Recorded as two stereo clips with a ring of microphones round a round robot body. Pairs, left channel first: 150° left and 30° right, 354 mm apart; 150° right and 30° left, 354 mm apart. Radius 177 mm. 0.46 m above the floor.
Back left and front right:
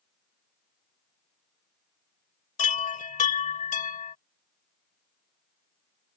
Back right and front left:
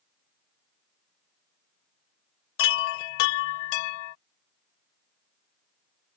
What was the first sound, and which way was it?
A chime, 140° right.